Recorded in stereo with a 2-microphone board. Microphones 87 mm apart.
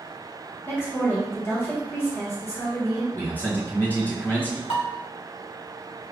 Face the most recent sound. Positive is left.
turn(degrees=75)  # may be behind; listen again after turning